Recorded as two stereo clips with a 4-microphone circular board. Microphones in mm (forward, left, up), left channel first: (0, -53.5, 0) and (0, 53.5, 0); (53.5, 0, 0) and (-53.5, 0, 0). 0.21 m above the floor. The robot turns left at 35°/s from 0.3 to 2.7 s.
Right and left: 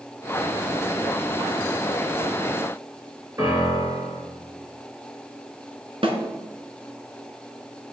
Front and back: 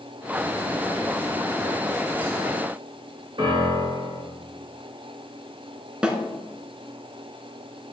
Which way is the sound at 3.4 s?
145° left.